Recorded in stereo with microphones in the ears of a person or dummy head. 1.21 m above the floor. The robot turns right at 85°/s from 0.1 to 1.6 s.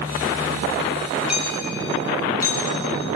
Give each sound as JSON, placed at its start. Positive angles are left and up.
{"t": 1.3, "sound": "hammering", "side_deg": -10, "distance_m": 6.5}